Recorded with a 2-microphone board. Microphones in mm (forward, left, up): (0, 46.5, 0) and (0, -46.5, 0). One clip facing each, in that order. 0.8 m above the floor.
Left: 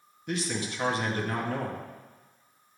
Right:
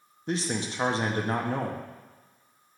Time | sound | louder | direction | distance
0.3 | a man speaking | right 2 dB | 30° right (ahead or behind) | 0.8 m